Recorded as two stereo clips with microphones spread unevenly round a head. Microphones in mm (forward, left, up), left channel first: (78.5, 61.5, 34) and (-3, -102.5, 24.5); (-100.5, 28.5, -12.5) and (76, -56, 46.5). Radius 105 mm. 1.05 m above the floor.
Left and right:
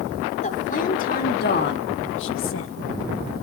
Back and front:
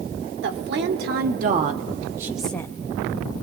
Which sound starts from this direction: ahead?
A woman speaking, at 0.4 s.